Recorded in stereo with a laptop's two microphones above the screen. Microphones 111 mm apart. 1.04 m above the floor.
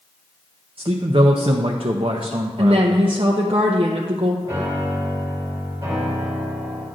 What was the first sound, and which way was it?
A man speaking, 55° right (ahead or behind).